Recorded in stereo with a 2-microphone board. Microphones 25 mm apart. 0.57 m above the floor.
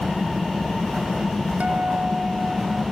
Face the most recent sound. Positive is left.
turn(degrees=-85)